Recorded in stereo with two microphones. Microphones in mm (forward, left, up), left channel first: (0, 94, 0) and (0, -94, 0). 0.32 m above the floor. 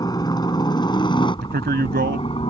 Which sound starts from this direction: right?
A man speaking, at 1.4 s.